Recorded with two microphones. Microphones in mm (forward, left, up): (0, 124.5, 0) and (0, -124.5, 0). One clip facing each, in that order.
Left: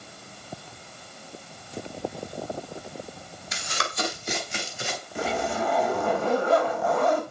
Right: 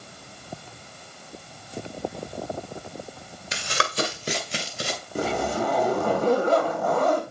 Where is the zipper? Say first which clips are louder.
Right 3 dB; 40° right (ahead or behind), 4 m.